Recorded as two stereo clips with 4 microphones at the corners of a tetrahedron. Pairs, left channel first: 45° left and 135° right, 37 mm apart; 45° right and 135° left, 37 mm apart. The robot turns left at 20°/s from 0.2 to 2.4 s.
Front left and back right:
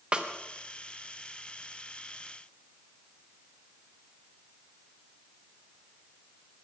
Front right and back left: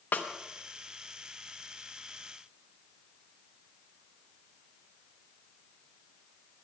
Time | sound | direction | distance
0.1 | a snare drum | 75° right | 1.0 m